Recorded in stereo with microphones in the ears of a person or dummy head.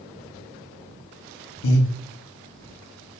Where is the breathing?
55° left (ahead or behind), 0.6 m.